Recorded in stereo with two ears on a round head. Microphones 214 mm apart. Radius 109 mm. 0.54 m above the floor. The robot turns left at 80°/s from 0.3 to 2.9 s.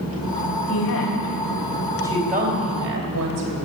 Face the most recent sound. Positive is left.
turn(degrees=-65)  # may be behind; listen again after turning